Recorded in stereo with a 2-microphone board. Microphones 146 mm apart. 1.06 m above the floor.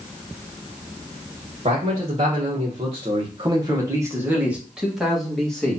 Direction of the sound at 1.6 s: 50° right (ahead or behind).